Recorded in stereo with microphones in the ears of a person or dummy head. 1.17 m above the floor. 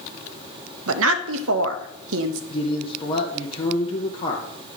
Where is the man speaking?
35° left (ahead or behind), 0.8 m.